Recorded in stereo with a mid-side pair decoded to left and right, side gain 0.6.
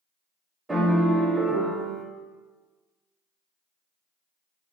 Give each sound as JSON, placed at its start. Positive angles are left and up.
{"t": 0.7, "sound": "a piano", "azimuth_deg": -15, "distance_m": 0.7}